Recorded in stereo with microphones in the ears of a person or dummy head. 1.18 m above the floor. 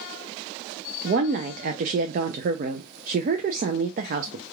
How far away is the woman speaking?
About 0.5 m.